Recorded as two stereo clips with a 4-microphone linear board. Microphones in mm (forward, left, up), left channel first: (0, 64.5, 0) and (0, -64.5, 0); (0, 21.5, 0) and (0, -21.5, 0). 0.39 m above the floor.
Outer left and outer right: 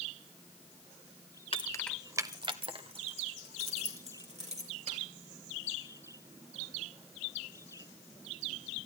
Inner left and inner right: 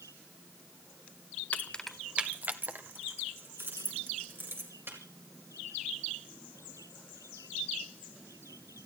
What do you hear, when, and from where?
1.5 s keys jangling: 45° left (ahead or behind), 0.7 m; by 5.0 s 60° right (ahead or behind), 4.5 m